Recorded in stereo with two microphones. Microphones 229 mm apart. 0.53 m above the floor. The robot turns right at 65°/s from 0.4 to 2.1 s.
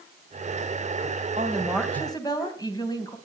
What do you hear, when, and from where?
1.4 s a woman speaking: 30° right, 3.5 m; by 3.2 s 20° left, 3.5 m